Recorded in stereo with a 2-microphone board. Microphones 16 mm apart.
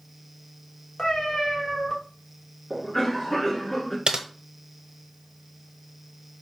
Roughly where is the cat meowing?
Left.